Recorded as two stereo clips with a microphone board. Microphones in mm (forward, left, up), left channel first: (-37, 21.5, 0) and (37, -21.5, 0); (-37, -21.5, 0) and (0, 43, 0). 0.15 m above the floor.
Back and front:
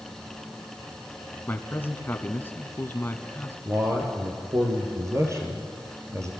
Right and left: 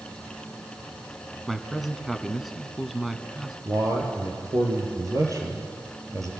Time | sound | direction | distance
1.5 | a man speaking | 150° left | 1.2 m
3.6 | a man speaking | 20° left | 3.5 m